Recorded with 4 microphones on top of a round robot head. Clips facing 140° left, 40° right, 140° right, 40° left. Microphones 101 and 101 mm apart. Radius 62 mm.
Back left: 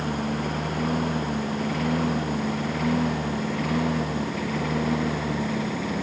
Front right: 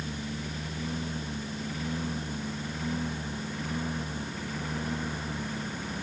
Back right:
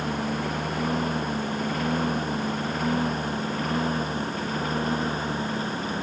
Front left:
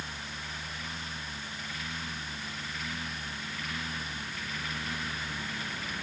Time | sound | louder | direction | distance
0.0 | a lawn mower | back left 10 dB, back right 15 dB | straight behind | ?